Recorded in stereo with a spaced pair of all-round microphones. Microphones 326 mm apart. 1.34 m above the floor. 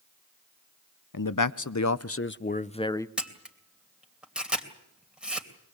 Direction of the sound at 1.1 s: 75° left (ahead or behind).